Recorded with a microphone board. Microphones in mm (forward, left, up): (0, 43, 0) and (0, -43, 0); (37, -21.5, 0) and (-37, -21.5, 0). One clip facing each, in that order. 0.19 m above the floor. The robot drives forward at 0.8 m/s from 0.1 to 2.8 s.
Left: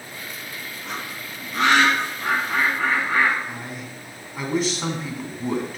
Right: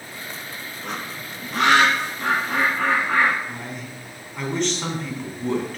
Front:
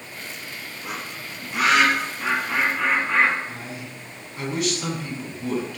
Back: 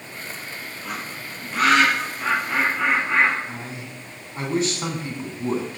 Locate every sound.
0.8 s a bird: 70° right, 3.5 m; by 3.4 s 100° right, 3.5 m
3.5 s a man speaking: 170° left, 1.6 m